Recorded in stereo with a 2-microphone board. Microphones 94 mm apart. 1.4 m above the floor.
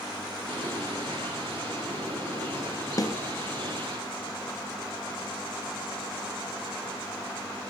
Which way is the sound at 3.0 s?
40° left (ahead or behind).